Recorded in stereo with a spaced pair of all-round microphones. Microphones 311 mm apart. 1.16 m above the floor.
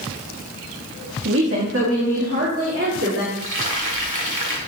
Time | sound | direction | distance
1.2 | a woman speaking | 45° right (ahead or behind) | 1.6 m
3.4 | frying | 75° right (ahead or behind) | 1.8 m